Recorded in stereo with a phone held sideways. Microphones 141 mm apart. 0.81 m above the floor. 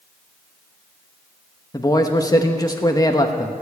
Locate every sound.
1.7 s a man speaking: 25° left (ahead or behind), 0.9 m